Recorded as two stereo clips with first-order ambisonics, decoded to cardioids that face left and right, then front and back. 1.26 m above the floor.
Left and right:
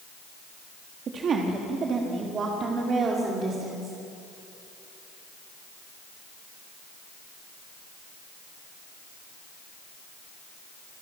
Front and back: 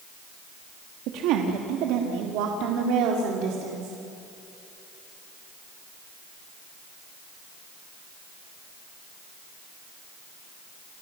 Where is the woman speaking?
150° right, 2 m; by 4.0 s 155° right, 3.5 m.